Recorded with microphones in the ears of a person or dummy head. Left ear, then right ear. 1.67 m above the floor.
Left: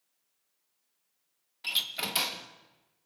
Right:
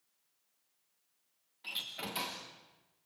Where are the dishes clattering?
I don't hear dishes clattering.